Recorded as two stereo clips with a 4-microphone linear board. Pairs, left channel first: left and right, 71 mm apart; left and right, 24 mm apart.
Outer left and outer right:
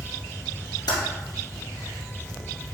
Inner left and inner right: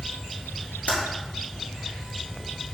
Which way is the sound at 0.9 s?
75° left (ahead or behind).